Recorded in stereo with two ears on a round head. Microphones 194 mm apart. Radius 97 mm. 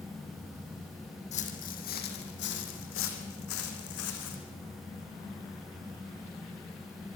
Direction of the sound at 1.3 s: 35° left (ahead or behind).